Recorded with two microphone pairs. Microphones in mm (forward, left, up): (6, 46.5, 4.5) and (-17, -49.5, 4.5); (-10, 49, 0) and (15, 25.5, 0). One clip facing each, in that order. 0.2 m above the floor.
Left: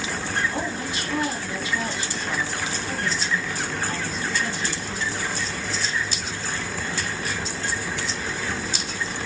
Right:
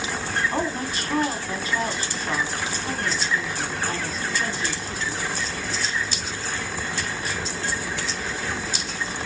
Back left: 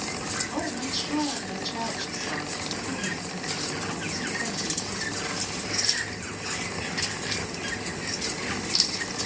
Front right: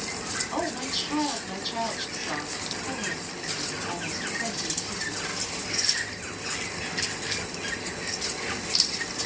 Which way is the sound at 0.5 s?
110° right.